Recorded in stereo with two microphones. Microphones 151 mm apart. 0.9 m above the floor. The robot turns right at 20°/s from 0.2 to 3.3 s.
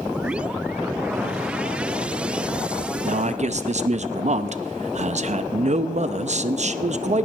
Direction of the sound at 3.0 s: 55° right (ahead or behind).